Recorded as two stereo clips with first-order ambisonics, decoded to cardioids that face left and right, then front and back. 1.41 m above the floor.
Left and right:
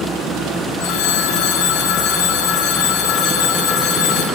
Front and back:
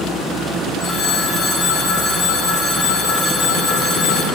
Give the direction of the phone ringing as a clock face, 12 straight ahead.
10 o'clock.